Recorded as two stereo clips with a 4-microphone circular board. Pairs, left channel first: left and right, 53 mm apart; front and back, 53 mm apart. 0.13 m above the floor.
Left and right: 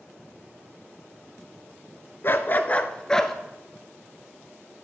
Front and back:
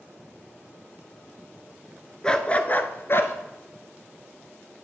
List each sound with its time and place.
2.2 s a dog barking: 70° left, 0.8 m; by 3.3 s 10° left, 0.9 m